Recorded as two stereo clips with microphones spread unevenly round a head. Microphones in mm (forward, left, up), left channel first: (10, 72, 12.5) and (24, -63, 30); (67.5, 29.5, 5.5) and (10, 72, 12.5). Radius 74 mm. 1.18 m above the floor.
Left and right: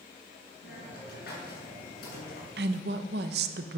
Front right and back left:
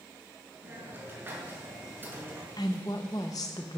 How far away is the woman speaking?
About 0.8 m.